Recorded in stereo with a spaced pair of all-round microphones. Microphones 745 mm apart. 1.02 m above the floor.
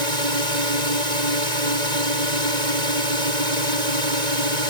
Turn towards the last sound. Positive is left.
turn(degrees=-65)  # may be behind; listen again after turning